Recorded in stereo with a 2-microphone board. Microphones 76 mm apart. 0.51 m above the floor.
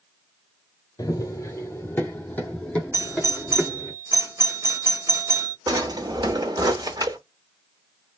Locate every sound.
1.0 s running footsteps: 55° left (ahead or behind), 0.8 m; by 3.9 s 5° left (ahead or behind), 1.7 m
2.9 s a doorbell: 40° right (ahead or behind), 1.3 m
5.7 s a drawer: 65° right (ahead or behind), 0.9 m